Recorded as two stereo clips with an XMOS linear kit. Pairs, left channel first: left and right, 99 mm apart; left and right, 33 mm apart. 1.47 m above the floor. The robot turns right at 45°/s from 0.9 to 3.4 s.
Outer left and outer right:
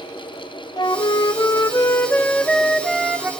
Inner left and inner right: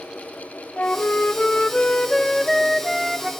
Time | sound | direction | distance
0.8 | a flute | 95° left | 0.5 m